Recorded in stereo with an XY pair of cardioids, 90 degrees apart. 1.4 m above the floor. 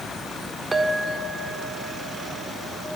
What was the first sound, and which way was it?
A clink, 35° right.